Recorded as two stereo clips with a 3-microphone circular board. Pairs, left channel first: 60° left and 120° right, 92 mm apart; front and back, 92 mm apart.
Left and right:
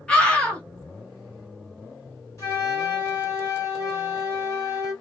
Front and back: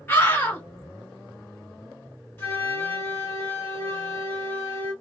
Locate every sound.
0.1 s a scream: 5° right, 1.4 m
2.4 s a flute: 40° left, 1.8 m